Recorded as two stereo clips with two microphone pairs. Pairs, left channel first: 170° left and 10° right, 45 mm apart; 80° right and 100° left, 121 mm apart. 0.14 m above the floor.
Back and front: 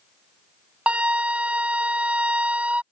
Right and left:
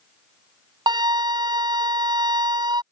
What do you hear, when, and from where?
0.9 s a flute: 50° left